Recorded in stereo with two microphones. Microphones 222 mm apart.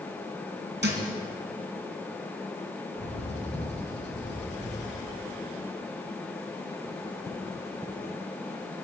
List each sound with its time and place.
0.8 s a thud: 55° right (ahead or behind), 2.5 m
3.0 s a bird: 55° left (ahead or behind), 4 m